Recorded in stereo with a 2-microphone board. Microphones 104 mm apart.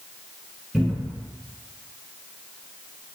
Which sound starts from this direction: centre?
A cupboard door, at 0.7 s.